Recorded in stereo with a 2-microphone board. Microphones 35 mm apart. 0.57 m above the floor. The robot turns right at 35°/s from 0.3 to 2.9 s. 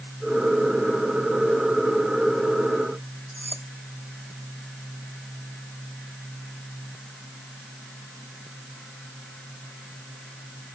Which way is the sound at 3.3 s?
80° right.